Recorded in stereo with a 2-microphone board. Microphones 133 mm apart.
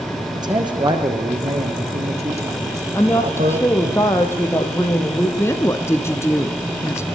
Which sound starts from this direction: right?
A man speaking, at 0.3 s.